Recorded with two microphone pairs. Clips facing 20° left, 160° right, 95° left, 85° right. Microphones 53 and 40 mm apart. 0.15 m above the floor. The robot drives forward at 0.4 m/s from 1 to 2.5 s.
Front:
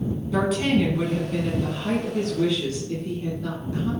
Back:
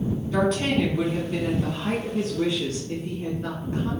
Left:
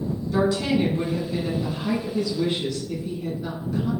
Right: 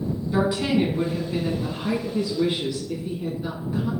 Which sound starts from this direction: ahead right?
A woman speaking, at 0.3 s.